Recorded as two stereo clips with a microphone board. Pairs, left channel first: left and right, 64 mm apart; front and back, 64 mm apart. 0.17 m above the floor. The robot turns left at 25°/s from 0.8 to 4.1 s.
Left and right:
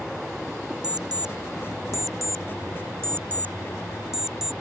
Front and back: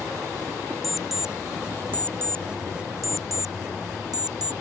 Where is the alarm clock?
90° right; by 4.5 s 170° right.